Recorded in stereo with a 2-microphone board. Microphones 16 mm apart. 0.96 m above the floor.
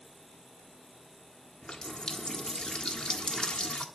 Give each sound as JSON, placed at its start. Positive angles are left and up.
{"t": 1.6, "sound": "a running tap", "side_deg": 75, "distance_m": 1.4}